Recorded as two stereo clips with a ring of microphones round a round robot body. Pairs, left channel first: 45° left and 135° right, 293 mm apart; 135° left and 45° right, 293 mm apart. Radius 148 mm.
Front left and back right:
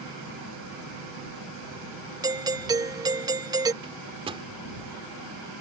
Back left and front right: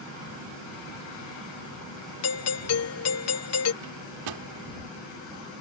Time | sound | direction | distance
2.2 | a doorbell | 150° left | ?
3.8 | a microwave | 60° right | ?